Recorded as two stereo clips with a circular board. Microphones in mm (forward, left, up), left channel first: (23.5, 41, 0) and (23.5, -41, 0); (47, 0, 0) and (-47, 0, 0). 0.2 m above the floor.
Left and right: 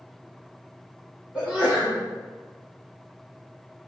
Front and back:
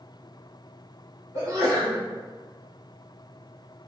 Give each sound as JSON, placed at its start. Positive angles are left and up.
{"t": 1.3, "sound": "a sneeze", "azimuth_deg": -150, "distance_m": 1.6}